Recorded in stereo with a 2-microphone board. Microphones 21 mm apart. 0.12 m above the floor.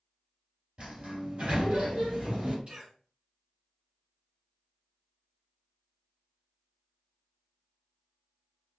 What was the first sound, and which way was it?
A sliding door, 55° right (ahead or behind).